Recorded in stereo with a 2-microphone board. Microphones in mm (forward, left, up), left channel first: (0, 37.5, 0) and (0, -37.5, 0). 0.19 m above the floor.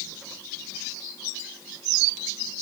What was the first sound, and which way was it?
Only background noise.